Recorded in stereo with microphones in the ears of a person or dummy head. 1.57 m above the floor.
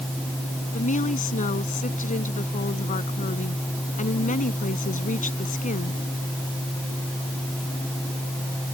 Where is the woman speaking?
40° left (ahead or behind).